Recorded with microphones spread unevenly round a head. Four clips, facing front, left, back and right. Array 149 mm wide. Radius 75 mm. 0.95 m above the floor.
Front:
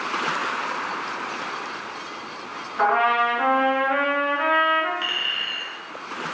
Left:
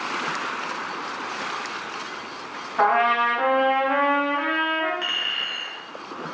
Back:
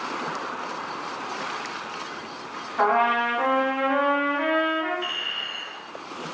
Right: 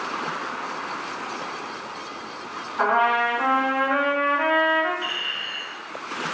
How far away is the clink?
About 0.7 m.